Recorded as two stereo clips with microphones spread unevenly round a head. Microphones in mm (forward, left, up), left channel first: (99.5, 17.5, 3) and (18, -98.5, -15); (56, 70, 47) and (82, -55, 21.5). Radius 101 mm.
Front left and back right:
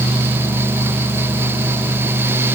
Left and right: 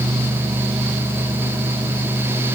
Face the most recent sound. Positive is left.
No sound to turn to.